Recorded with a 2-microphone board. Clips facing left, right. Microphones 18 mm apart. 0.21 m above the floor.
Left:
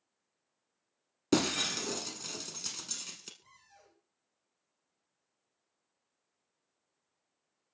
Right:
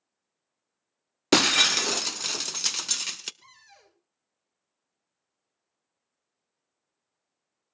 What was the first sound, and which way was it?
Breaking glass, 45° right (ahead or behind).